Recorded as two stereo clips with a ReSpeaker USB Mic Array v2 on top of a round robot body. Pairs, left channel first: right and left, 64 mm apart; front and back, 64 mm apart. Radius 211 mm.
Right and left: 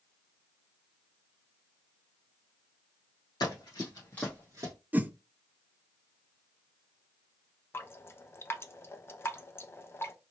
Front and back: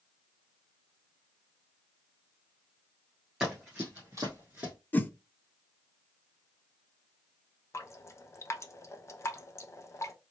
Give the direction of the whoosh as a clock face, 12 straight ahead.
11 o'clock.